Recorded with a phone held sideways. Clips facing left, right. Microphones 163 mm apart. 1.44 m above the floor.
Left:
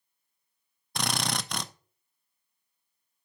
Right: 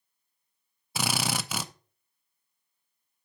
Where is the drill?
5° right (ahead or behind), 0.5 m.